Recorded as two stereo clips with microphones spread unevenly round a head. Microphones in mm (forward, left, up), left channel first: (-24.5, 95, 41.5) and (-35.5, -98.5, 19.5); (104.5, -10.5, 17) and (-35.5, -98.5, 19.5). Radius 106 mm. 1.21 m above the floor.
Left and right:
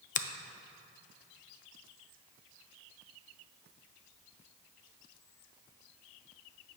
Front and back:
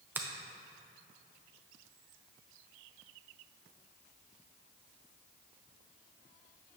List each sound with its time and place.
0.1 s a finger snap: 135° left, 0.5 m